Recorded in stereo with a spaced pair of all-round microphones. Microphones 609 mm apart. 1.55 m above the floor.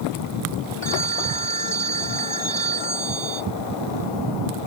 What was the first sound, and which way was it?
A phone ringing, 35° right (ahead or behind).